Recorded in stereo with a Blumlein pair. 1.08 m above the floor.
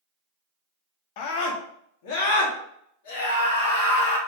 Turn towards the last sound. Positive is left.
turn(degrees=55)